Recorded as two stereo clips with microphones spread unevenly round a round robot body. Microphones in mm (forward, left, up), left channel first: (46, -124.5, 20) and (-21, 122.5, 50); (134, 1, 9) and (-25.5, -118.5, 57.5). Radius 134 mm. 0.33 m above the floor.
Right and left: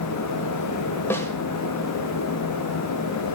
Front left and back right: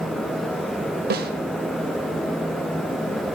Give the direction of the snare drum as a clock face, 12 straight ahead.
5 o'clock.